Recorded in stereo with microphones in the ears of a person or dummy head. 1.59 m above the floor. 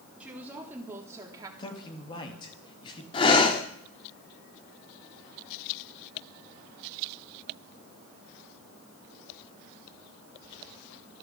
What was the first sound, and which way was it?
A woman speaking, 5° right (ahead or behind).